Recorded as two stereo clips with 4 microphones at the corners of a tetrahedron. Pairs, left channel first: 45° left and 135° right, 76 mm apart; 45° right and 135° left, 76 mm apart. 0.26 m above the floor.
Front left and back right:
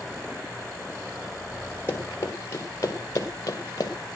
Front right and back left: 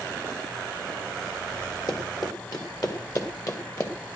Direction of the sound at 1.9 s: 15° right.